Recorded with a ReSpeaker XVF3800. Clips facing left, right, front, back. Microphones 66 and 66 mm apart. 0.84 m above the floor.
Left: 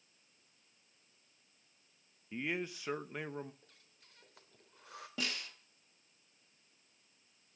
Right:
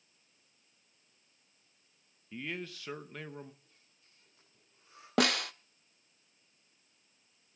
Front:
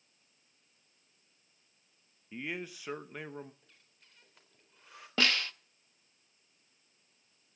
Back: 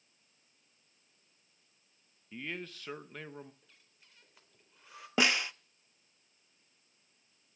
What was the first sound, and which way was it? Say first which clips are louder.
A man speaking: left 2 dB, front 2 dB; 55° left.